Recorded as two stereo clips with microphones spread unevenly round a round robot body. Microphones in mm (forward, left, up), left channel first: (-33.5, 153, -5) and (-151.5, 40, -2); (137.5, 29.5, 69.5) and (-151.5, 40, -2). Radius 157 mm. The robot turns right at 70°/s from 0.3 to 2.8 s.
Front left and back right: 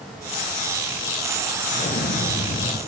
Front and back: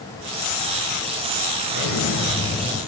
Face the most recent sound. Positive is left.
turn(degrees=90)